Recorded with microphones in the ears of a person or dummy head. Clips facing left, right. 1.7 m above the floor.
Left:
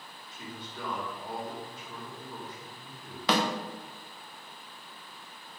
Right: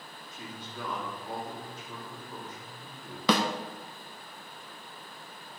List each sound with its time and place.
0.3 s a man speaking: 80° right, 3 m
3.3 s a snare drum: 75° right (ahead or behind), 0.7 m